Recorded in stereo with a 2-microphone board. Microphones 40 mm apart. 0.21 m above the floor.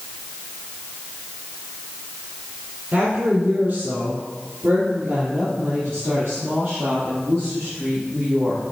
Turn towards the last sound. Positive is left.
turn(degrees=-70)  # may be behind; listen again after turning